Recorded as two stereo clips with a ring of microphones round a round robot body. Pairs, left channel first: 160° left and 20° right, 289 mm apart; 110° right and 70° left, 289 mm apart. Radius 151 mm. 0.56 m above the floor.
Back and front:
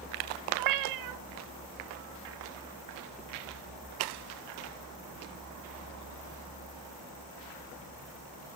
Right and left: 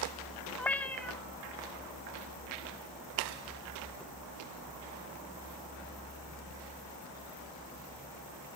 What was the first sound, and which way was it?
A cat meowing, 30° right.